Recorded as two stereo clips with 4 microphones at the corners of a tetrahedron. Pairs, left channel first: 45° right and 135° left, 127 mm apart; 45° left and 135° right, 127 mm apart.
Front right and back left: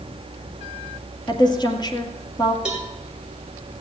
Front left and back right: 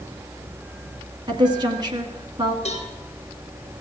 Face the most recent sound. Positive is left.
turn(degrees=50)